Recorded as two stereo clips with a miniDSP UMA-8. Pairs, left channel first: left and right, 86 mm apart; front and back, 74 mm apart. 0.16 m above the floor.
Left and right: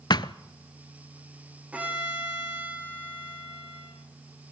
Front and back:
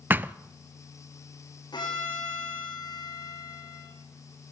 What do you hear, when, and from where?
0.1 s a thud: 120° left, 0.5 m
1.7 s a violin: 15° right, 6.5 m